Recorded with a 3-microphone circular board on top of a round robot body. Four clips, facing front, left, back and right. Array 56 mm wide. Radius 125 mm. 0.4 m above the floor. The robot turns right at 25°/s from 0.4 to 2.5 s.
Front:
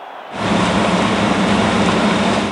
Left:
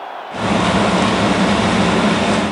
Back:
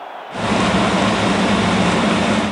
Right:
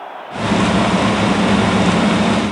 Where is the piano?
No piano in this recording.